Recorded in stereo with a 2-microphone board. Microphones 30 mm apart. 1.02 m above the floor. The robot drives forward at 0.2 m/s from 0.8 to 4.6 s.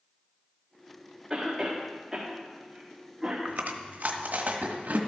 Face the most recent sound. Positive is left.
turn(degrees=-55)  # may be behind; listen again after turning